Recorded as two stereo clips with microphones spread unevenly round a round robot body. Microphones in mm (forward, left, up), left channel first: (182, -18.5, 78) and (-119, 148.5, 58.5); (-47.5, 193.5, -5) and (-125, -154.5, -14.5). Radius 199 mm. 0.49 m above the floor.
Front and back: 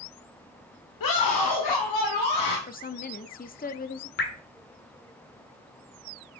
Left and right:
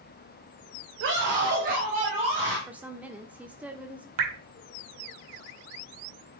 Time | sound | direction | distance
1.0 | a scream | 50° right | 1.6 m
2.7 | a woman speaking | 30° right | 0.9 m
4.2 | dripping | 90° right | 1.7 m